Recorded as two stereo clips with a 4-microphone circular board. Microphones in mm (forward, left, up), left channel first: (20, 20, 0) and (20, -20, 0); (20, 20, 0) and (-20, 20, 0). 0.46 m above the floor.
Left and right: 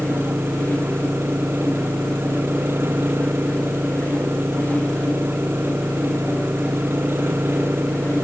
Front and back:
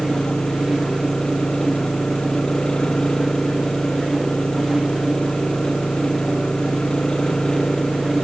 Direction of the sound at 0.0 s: 70° right.